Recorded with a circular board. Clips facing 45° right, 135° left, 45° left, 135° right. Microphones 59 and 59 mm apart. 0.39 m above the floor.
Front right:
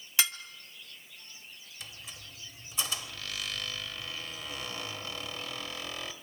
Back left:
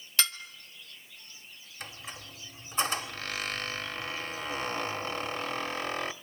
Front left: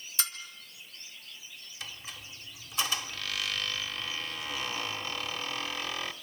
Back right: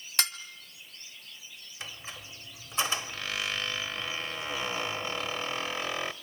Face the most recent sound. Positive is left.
turn(degrees=170)